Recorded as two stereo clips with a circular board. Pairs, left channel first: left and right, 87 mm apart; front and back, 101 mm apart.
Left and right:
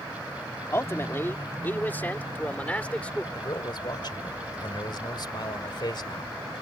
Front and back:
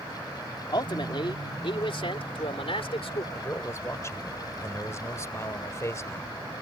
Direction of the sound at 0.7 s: 35° left.